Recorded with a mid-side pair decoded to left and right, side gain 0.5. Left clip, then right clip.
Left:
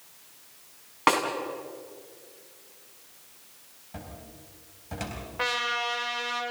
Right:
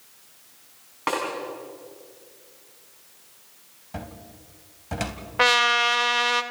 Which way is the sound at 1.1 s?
40° left.